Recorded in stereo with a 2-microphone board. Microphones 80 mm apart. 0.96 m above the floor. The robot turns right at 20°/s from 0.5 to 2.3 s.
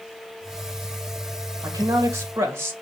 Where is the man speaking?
40° right (ahead or behind), 1.2 m; by 2.7 s 30° right (ahead or behind), 1.2 m.